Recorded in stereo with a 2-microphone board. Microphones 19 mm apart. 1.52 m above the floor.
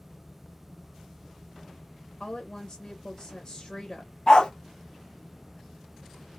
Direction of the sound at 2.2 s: 40° left (ahead or behind).